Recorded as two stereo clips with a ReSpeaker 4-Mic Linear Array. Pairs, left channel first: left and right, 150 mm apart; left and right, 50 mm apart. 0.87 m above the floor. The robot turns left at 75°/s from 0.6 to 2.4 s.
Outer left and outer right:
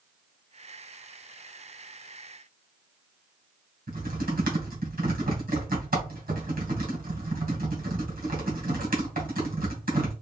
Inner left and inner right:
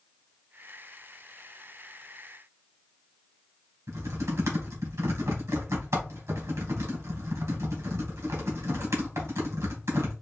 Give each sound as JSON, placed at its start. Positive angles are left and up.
{"t": 3.9, "sound": "typing on a keyboard", "side_deg": -80, "distance_m": 2.0}